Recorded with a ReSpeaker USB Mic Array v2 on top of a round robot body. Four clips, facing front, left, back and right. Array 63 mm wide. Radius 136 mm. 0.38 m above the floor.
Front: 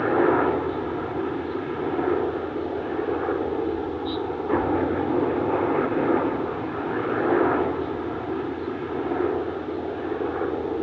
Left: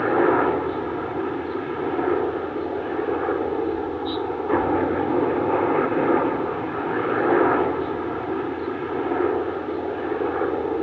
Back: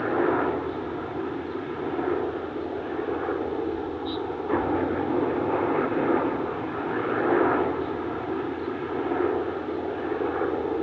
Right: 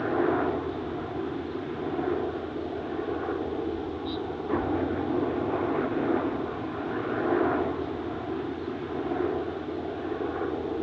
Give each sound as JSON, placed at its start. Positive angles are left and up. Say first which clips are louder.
{"t": 0.0, "sound": "a helicopter", "louder": "left 7 dB, front 4 dB", "azimuth_deg": 75}